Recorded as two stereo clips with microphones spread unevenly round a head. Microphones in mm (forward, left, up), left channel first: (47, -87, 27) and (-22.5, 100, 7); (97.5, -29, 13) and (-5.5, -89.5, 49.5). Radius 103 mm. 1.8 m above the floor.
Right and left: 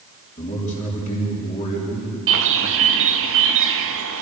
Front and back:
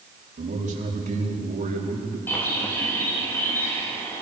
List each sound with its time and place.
0.4 s a man speaking: 130° right, 4.5 m
2.3 s a bird: 125° left, 1.4 m